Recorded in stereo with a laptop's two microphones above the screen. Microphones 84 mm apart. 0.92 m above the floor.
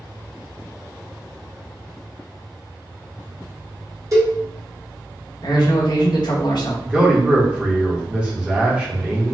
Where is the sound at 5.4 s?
60° left (ahead or behind), 0.6 m.